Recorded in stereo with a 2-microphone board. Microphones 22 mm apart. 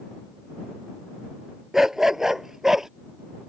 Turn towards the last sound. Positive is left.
turn(degrees=-20)  # may be behind; listen again after turning